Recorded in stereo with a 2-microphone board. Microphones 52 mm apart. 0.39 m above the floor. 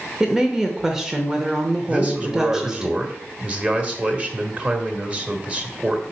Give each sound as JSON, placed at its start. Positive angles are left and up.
{"t": 0.2, "sound": "a woman speaking", "side_deg": -10, "distance_m": 0.8}
{"t": 1.9, "sound": "a man speaking", "side_deg": -25, "distance_m": 1.2}